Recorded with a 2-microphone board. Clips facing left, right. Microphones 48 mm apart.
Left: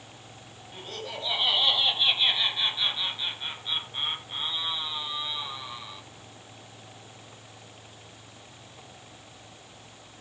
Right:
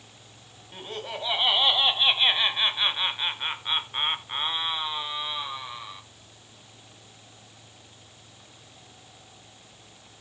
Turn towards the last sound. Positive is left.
turn(degrees=-20)  # may be behind; listen again after turning